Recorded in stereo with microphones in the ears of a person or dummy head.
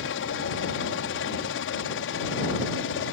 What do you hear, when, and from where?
0.0 s a helicopter: 65° left (ahead or behind)